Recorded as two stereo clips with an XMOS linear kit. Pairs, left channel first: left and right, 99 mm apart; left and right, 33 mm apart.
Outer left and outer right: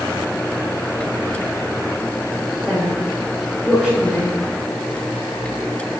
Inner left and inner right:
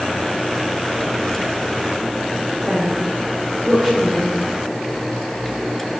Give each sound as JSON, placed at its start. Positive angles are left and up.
{"t": 2.7, "sound": "a woman speaking", "side_deg": -5, "distance_m": 4.0}